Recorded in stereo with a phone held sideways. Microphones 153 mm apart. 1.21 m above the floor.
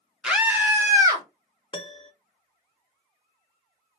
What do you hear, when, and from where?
0.2 s a scream: 5° right (ahead or behind), 1.2 m; by 1.2 s 25° right (ahead or behind), 1.8 m
1.7 s a piano: 30° left (ahead or behind), 0.6 m